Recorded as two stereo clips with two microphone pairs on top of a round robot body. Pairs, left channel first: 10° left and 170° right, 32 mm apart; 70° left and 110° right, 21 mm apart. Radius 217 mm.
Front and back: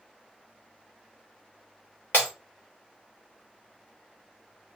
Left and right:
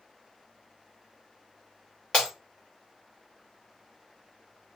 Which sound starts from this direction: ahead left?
Breaking glass, at 2.1 s.